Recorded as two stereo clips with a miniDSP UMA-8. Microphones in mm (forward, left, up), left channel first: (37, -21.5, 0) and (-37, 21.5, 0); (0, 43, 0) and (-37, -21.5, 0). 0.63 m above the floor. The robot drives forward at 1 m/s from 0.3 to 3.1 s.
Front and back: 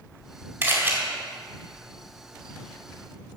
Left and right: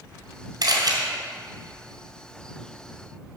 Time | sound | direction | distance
0.6 | a camera shutter | 145° right | 3 m